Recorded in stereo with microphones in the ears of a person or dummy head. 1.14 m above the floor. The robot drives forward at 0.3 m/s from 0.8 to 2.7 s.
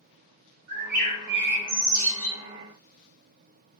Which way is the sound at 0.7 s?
55° right (ahead or behind).